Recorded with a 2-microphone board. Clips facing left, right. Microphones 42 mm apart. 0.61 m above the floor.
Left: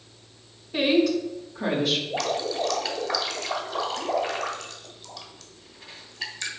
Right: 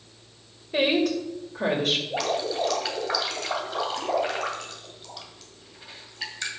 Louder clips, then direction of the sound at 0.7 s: Left 1 dB; 70° right (ahead or behind).